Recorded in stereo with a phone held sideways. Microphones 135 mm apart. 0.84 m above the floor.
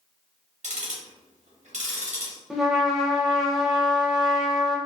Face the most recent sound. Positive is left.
turn(degrees=0)  # may be behind; listen again after turning